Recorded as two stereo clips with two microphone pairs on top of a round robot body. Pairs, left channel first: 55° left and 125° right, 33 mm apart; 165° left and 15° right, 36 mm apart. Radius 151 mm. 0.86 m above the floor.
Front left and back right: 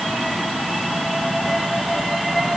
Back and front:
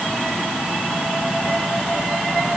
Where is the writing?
No writing in this recording.